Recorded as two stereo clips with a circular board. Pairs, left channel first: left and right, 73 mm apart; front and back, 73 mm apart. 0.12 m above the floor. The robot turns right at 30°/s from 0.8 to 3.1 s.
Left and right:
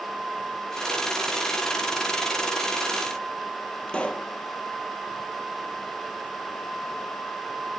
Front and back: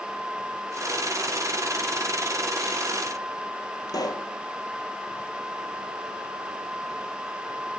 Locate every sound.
3.9 s a pop: 15° left, 0.9 m